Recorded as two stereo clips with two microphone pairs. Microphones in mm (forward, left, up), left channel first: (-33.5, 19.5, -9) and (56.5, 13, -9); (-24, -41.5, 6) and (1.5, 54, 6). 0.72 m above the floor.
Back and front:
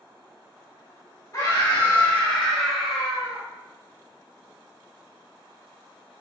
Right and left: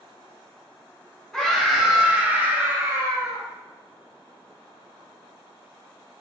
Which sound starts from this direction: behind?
A scream, at 1.3 s.